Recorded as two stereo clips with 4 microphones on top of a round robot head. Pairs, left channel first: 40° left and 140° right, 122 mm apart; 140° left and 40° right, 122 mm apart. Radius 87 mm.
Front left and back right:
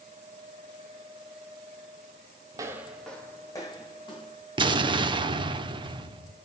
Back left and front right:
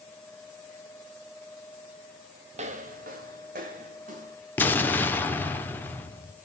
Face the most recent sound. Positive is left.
turn(degrees=-155)